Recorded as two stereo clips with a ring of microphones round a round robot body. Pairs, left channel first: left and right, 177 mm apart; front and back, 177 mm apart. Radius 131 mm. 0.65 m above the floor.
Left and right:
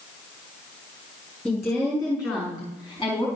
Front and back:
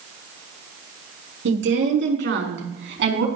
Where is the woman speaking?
170° left, 5.5 m; by 3.3 s 160° left, 5.5 m.